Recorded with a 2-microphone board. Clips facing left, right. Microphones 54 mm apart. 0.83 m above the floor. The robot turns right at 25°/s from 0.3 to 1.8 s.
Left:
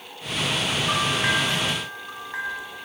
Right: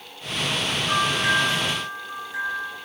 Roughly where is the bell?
Left.